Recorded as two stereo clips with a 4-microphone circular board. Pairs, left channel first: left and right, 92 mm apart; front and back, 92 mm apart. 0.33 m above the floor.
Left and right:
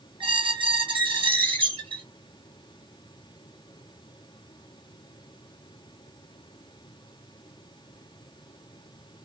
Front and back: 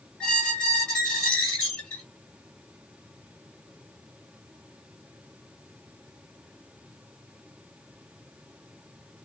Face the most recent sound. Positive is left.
turn(degrees=-80)